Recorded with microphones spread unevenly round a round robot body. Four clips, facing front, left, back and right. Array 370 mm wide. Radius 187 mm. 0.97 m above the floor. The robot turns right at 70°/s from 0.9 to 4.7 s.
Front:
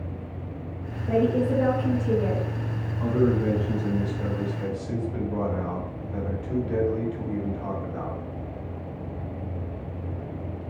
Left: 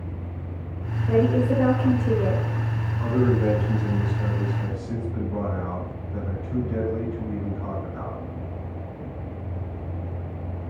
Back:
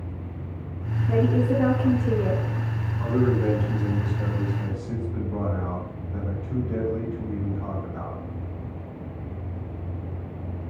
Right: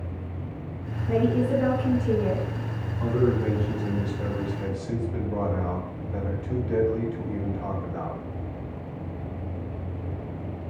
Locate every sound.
1.1 s a woman speaking: 25° left, 1.6 m; by 2.5 s 125° left, 1.6 m
3.0 s a man speaking: 140° left, 1.8 m; by 8.2 s 100° right, 1.8 m